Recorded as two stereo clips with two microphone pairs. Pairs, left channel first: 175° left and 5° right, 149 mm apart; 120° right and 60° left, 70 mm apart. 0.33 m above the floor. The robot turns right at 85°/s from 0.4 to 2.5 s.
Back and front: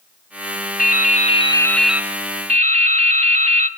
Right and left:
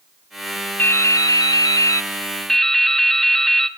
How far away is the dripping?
About 1.0 m.